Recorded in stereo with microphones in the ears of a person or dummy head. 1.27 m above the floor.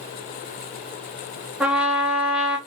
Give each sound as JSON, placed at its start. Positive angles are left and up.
{"t": 1.6, "sound": "a trumpet", "side_deg": -5, "distance_m": 0.9}